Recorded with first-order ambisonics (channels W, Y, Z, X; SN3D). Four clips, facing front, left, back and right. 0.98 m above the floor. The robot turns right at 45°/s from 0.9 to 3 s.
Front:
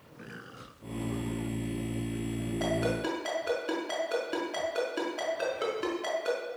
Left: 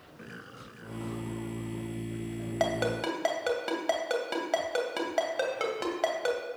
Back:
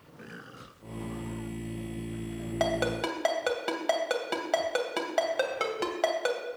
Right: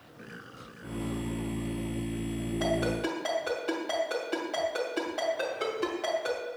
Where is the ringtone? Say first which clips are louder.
Left 1 dB, back 2 dB; 130° left, 2.5 m; by 6.4 s 150° left, 2.5 m.